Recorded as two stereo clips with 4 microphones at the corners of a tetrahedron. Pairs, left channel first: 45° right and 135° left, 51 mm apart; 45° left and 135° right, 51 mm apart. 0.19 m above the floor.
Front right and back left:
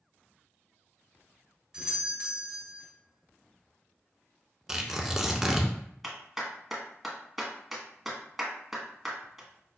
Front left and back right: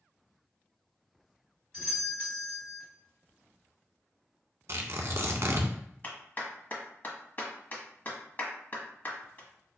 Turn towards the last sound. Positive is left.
turn(degrees=55)